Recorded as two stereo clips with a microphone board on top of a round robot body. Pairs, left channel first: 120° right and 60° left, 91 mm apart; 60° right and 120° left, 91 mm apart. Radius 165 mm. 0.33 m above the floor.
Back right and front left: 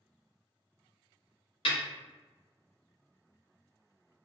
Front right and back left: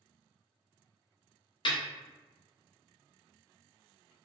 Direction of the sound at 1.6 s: 95° right.